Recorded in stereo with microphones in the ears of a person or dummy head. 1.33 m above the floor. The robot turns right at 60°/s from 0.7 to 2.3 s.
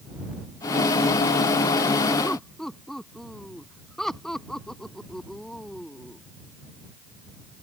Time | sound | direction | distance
2.2 | laughter | 5° left (ahead or behind) | ?